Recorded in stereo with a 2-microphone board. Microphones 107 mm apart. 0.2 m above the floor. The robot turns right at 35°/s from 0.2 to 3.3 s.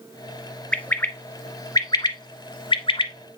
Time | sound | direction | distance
0.7 | a bird | 10° left (ahead or behind) | 0.8 m